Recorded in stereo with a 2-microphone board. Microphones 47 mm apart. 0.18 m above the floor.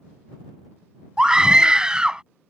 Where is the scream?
20° right (ahead or behind).